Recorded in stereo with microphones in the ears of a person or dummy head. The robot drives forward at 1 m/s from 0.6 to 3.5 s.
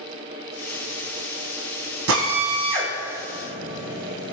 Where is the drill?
80° right, 3.5 m; by 4.3 s 60° right (ahead or behind), 4 m.